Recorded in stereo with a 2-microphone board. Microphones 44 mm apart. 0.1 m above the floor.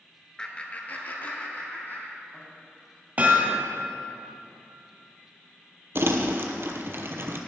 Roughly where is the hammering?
Right.